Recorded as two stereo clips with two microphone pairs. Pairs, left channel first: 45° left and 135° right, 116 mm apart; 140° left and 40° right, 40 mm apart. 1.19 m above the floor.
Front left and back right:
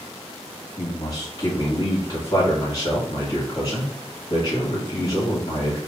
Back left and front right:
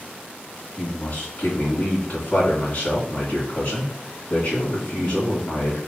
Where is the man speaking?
95° left, 1.5 m.